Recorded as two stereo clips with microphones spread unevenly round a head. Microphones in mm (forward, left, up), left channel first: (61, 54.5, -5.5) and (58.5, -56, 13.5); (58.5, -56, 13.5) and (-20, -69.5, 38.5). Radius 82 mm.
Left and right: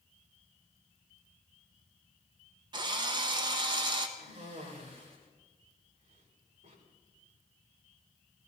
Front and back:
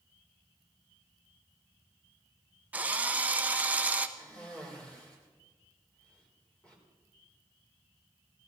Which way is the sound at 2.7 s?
120° right.